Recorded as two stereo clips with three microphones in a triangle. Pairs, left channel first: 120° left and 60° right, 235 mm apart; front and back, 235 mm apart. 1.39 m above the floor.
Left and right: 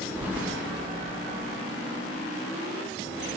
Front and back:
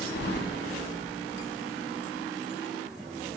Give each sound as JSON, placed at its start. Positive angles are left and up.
{"t": 0.1, "sound": "keys jangling", "azimuth_deg": 20, "distance_m": 0.7}